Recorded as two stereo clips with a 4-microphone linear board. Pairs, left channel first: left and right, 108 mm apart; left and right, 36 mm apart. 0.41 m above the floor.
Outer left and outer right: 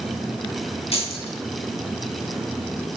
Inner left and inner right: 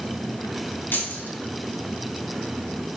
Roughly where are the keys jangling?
Left.